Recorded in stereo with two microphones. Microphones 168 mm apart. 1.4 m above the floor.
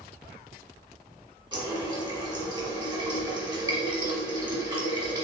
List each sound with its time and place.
1.5 s a running tap: 25° right (ahead or behind), 1.1 m